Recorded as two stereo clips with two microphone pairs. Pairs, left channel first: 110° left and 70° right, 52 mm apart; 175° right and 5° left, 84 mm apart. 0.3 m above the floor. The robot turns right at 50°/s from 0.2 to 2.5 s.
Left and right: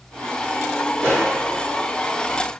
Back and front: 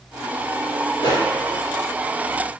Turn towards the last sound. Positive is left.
turn(degrees=-140)